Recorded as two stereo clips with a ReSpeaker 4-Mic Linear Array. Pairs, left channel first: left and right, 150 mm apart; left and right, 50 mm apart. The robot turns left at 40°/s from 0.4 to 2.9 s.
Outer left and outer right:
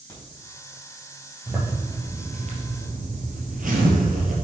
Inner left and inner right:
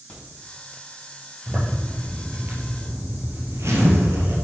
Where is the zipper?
10° right, 3 m; by 4.3 s 65° right, 3 m.